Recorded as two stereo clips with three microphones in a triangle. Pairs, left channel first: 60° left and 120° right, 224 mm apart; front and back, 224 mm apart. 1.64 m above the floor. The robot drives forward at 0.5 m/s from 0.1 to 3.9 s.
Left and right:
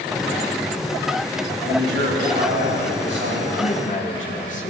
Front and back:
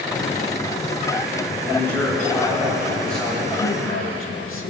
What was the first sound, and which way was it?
A man speaking, 80° right.